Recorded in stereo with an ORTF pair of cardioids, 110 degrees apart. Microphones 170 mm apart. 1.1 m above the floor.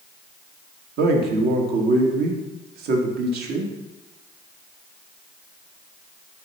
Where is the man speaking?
70° right, 1.7 m.